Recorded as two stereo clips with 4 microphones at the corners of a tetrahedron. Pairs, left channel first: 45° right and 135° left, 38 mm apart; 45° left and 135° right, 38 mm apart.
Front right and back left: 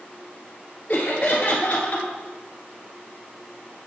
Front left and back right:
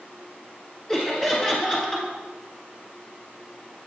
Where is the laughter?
10° right, 1.4 m.